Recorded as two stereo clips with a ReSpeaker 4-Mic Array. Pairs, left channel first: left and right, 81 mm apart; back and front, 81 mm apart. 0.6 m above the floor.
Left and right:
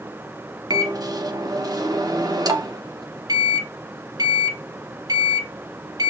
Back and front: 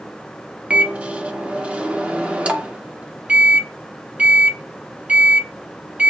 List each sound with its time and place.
0.7 s a microwave: 70° right, 0.7 m